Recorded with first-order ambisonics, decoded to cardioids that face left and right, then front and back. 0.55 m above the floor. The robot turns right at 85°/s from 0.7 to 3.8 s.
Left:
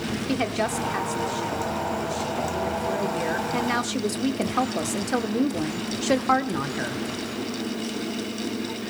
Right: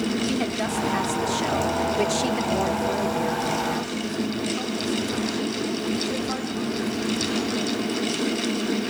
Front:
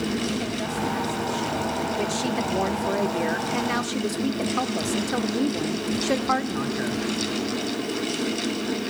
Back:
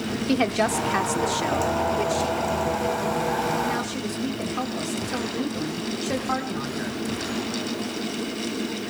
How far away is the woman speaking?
About 1.3 m.